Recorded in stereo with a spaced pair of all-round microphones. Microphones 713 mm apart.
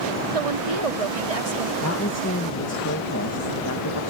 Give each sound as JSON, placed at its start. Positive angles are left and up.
{"t": 0.3, "sound": "a woman speaking", "side_deg": -55}
{"t": 1.8, "sound": "a woman speaking", "side_deg": 20}